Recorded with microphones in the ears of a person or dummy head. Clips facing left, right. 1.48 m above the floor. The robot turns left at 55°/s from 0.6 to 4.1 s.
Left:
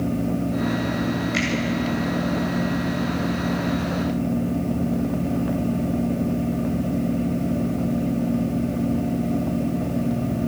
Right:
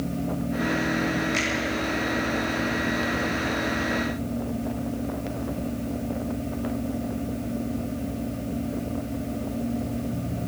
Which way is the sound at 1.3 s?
15° left (ahead or behind).